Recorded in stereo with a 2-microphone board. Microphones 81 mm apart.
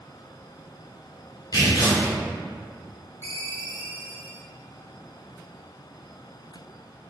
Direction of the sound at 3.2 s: 30° left (ahead or behind).